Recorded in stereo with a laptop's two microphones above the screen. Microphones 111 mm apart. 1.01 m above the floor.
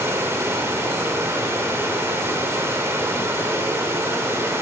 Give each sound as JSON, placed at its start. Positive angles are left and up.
{"t": 0.0, "sound": "running water", "side_deg": -25, "distance_m": 1.1}